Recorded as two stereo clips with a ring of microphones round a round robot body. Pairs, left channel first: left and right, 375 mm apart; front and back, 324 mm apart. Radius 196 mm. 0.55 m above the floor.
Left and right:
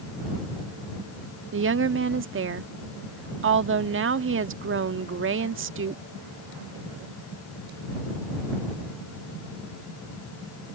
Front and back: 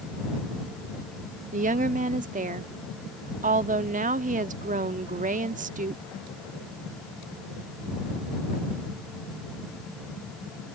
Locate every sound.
1.5 s a woman speaking: 125° right